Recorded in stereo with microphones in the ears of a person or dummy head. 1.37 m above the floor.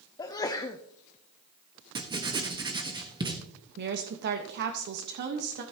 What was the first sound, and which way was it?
A sneeze, 20° left (ahead or behind).